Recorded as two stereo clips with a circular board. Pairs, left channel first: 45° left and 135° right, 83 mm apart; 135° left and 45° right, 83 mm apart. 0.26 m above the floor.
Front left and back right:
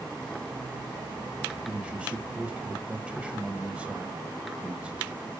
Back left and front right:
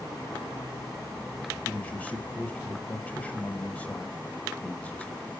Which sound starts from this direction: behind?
A man speaking, at 1.7 s.